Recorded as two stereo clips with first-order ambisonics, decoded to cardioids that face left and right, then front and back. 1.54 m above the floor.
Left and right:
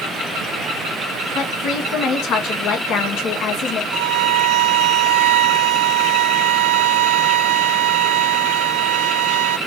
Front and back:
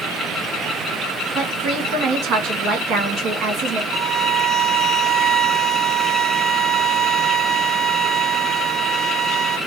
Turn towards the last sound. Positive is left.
turn(degrees=-105)